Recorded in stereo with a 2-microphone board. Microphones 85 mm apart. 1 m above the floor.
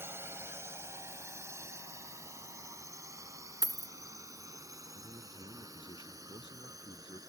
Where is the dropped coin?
45° right (ahead or behind).